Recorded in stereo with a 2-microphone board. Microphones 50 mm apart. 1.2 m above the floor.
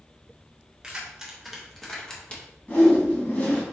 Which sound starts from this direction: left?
A whoosh, at 2.7 s.